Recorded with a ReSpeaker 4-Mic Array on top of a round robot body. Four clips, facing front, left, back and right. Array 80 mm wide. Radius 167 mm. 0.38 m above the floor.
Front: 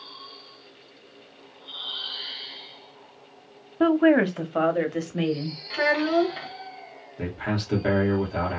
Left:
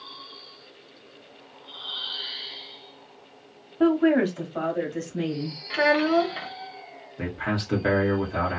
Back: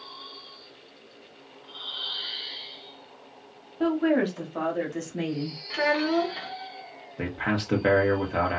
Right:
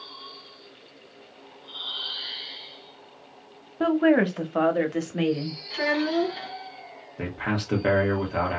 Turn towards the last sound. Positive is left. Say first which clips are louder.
# even, back 1 dB
turn(degrees=-160)